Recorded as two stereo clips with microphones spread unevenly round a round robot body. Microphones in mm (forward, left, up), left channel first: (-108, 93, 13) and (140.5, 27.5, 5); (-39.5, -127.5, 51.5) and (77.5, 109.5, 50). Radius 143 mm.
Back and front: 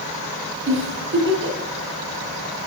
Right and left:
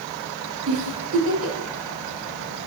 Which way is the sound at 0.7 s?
30° left.